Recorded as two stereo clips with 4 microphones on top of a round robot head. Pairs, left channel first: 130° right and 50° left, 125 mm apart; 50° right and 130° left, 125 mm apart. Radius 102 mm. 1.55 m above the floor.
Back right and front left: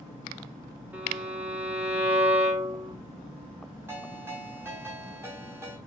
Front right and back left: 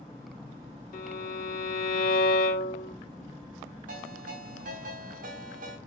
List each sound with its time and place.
0.9 s a violin: 25° right, 2.5 m
3.9 s a ringtone: 120° left, 7.5 m